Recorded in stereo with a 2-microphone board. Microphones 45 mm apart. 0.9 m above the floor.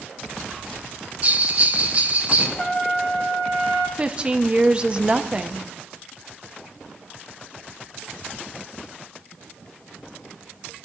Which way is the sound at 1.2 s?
35° right (ahead or behind).